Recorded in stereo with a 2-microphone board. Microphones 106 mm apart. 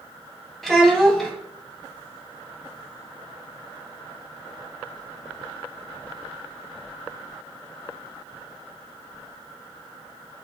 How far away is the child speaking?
About 0.6 m.